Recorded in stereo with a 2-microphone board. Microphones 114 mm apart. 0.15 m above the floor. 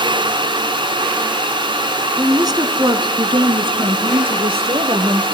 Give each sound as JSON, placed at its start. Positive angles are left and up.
{"t": 2.2, "sound": "a woman speaking", "side_deg": -30, "distance_m": 1.2}